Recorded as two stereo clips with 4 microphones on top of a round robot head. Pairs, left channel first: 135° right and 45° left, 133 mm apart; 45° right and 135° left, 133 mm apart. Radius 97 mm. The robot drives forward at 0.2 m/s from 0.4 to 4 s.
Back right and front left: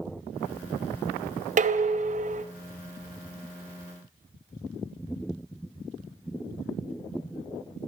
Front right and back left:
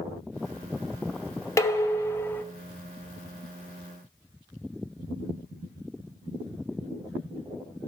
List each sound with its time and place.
1.6 s dishes clattering: 25° left, 1.0 m; by 2.4 s 30° left, 0.9 m